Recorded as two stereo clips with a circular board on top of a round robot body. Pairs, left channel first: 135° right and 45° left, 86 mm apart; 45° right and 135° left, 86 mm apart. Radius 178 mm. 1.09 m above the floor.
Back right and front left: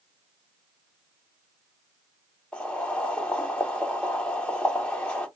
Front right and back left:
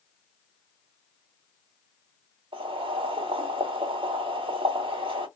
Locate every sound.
2.5 s boiling: 150° left, 1.8 m